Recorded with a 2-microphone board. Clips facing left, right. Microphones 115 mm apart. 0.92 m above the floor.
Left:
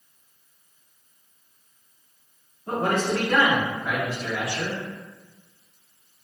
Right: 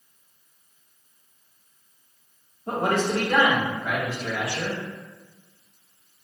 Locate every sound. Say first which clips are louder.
2.7 s a man speaking: even; 30° right (ahead or behind), 1.4 m; by 4.8 s 25° left (ahead or behind), 1.9 m